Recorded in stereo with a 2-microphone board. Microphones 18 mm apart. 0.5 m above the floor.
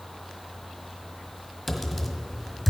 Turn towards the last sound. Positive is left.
turn(degrees=0)  # may be behind; listen again after turning